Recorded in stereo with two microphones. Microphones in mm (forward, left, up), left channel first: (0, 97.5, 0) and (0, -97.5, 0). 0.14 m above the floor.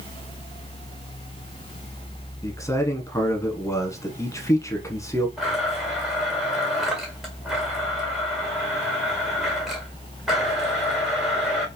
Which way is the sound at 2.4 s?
15° left (ahead or behind).